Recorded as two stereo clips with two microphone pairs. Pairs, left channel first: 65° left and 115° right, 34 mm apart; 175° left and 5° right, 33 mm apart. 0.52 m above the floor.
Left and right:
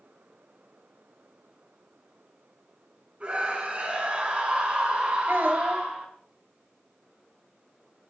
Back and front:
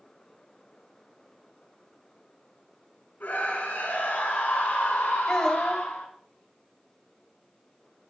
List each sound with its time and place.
3.2 s a scream: 170° right, 5.5 m
5.3 s a child speaking: 115° right, 2 m